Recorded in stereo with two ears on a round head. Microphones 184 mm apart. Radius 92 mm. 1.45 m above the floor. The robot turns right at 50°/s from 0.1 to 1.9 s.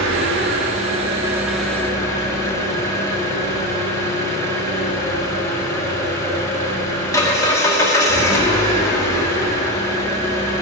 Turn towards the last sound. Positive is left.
turn(degrees=15)